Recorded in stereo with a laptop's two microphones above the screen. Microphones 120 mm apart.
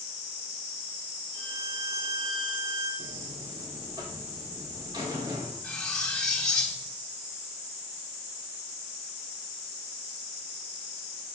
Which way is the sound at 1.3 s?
75° right (ahead or behind).